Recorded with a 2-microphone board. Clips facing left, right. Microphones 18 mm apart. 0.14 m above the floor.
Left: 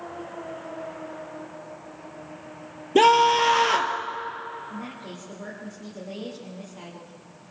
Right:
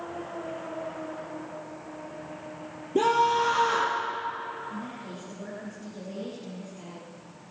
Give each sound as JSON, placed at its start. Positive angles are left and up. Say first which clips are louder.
{"t": 3.0, "sound": "a scream", "louder": "left 6 dB", "side_deg": 60, "distance_m": 3.0}
{"t": 4.7, "sound": "a woman speaking", "louder": "left 1 dB", "side_deg": 45, "distance_m": 7.0}